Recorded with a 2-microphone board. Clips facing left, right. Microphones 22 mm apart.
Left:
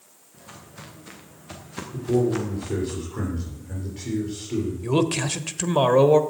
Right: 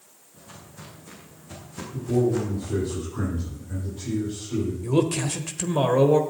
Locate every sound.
0.3 s footsteps: 35° left (ahead or behind), 6 m; by 2.9 s 55° left (ahead or behind), 3.5 m
1.9 s a man speaking: 50° left (ahead or behind), 7 m
4.8 s a man speaking: 30° left (ahead or behind), 1.1 m